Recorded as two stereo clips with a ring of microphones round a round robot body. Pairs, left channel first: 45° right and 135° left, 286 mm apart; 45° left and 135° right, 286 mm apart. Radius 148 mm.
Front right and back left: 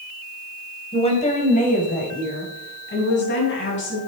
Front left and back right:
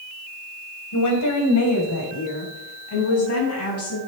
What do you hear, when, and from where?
0.9 s a woman speaking: 25° left, 3 m; by 4.0 s 5° left, 5.5 m